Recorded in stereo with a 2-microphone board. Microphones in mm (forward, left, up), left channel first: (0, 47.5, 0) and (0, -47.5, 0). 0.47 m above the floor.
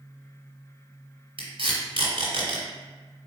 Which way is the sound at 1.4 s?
70° right (ahead or behind).